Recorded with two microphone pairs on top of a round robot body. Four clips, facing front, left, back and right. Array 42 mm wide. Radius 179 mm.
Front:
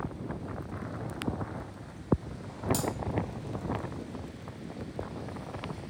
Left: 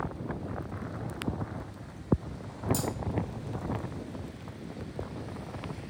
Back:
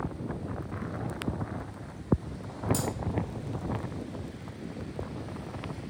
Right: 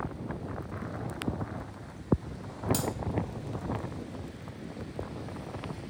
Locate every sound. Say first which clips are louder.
2.7 s cutlery clinking: even, even; 60° right, 0.7 m